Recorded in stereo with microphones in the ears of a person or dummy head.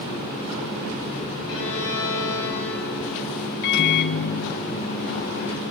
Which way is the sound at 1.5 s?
80° left.